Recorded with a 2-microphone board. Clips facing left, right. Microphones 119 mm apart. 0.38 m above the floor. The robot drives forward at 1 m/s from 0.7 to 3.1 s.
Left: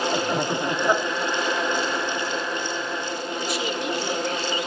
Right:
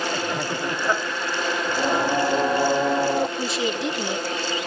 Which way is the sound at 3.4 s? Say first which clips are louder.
Right 2 dB; 25° right (ahead or behind).